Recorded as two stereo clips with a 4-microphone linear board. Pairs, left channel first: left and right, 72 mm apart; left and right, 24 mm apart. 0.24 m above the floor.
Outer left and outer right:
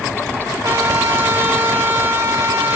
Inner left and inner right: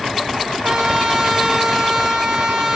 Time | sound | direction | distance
0.6 | a trumpet | 45° right (ahead or behind) | 6 m